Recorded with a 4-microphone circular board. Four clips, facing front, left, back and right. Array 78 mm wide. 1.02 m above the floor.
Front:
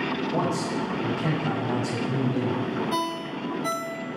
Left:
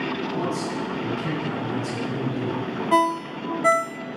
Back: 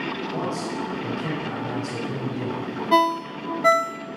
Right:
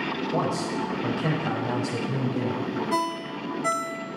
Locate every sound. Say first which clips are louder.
0.3 s a man speaking: even, front 2 dB; 80° right, 6 m
2.9 s a ringtone: left 12 dB, back 8 dB; 150° left, 0.5 m